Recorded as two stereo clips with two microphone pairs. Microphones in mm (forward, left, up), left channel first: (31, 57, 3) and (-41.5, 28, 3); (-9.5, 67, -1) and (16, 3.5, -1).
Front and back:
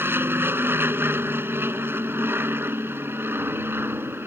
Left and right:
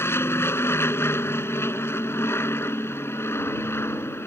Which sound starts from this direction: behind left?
An aircraft, at 0.0 s.